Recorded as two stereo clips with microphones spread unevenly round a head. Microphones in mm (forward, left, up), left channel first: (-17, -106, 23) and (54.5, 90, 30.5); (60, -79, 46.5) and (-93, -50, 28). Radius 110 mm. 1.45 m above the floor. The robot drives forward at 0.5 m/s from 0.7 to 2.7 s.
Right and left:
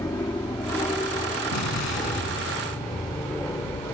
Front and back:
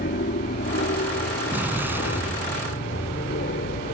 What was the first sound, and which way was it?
An aircraft, 30° right.